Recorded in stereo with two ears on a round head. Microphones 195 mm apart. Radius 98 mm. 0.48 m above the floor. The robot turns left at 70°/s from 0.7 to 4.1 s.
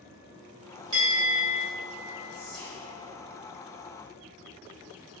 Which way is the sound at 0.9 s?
150° right.